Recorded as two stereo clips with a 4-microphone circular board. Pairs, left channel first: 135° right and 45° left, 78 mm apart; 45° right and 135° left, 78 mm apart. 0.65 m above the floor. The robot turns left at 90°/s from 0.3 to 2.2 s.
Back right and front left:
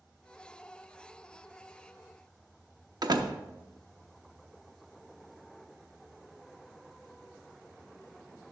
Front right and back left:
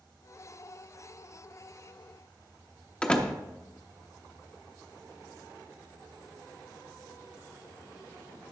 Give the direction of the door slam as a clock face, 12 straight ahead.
11 o'clock.